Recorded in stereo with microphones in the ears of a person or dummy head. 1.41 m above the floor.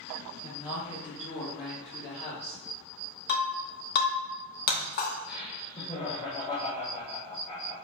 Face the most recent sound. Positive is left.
turn(degrees=30)  # may be behind; listen again after turning